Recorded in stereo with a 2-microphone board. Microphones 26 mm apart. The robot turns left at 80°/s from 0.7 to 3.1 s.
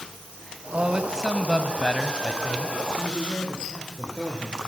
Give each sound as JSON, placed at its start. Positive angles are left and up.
{"t": 0.7, "sound": "a man speaking", "azimuth_deg": -120, "distance_m": 1.8}
{"t": 3.0, "sound": "a man speaking", "side_deg": 55, "distance_m": 9.5}